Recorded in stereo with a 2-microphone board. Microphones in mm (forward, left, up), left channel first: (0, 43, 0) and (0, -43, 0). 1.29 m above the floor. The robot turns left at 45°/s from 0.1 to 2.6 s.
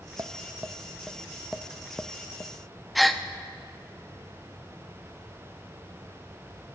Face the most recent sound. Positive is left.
turn(degrees=0)  # may be behind; listen again after turning